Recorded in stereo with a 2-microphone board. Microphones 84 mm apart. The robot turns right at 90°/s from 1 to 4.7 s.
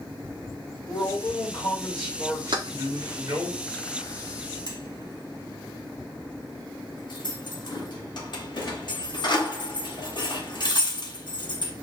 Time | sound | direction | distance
0.9 | a man speaking | 90° left | 1.6 m
2.5 | keys jangling | 60° right (ahead or behind) | 0.8 m